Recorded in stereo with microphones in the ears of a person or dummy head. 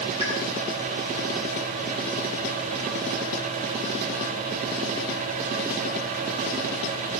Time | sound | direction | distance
0.2 | a pop | 20° left (ahead or behind) | 8 m